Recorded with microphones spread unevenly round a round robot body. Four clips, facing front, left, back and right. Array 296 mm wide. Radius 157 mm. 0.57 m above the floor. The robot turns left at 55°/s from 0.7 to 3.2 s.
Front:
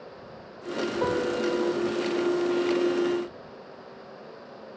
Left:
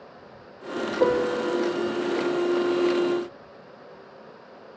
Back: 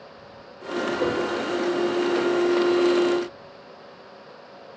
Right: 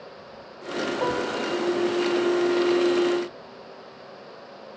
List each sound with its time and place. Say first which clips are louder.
1.0 s a piano: left 7 dB, front 1 dB; 70° left; by 1.7 s 30° left